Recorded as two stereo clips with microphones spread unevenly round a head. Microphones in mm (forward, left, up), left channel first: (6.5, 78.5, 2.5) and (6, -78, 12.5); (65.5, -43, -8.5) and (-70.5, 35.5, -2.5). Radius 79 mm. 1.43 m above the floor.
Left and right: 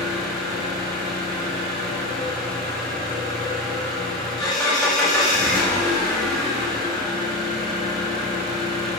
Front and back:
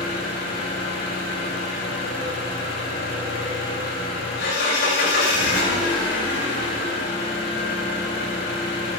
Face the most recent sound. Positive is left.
turn(degrees=5)